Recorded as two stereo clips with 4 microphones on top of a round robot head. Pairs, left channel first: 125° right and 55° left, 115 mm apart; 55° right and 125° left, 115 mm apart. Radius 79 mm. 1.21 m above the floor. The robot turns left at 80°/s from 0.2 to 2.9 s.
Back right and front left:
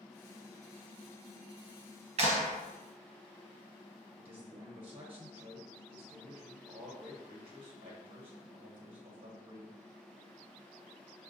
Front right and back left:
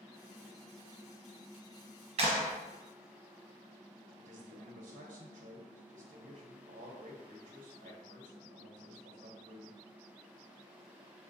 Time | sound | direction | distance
2.2 | a clap | 85° left | 1.1 m
4.2 | a man speaking | 100° left | 0.9 m